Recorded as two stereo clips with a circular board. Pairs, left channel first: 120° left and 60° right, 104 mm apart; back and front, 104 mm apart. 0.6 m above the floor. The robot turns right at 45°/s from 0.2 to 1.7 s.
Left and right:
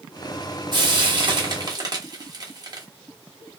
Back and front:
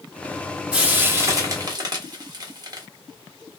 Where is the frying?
75° right, 1.0 m; by 2.9 s 30° right, 1.0 m.